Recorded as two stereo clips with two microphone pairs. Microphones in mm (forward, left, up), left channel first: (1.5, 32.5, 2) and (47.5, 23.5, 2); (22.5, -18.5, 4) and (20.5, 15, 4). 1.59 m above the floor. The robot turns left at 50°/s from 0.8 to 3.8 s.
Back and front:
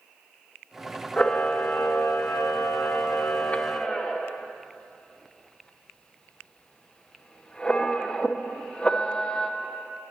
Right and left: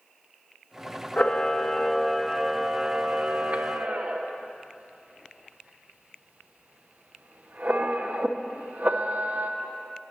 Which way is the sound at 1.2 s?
130° right.